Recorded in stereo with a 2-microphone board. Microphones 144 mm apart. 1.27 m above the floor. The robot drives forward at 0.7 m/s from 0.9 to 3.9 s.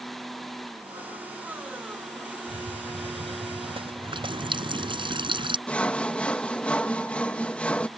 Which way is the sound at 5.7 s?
10° left (ahead or behind).